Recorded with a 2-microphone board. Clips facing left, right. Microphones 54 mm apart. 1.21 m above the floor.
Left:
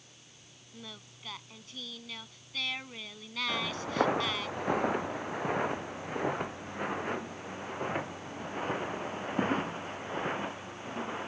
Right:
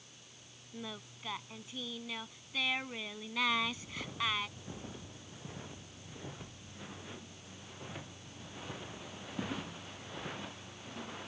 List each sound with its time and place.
0.7 s singing: 15° right (ahead or behind)
3.5 s footsteps: 75° left (ahead or behind); by 11.3 s 35° left (ahead or behind)